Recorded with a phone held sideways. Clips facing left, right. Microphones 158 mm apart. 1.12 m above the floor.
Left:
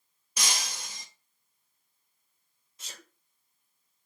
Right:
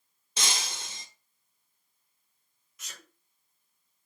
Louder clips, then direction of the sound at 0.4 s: Right 1 dB; 25° right (ahead or behind).